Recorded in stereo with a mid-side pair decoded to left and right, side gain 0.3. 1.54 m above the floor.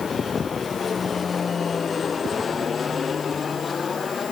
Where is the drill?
No drill in this recording.